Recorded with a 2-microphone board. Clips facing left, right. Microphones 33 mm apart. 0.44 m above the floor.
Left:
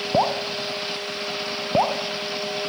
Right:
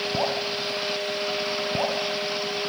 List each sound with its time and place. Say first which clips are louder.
0.1 s dripping: left 8 dB; 40° left (ahead or behind), 1.0 m